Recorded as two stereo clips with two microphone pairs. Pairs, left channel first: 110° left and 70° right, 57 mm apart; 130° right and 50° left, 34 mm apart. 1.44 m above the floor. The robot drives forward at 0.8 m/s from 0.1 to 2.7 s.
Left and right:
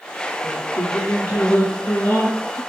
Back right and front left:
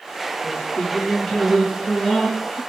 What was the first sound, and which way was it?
Singing, 170° left.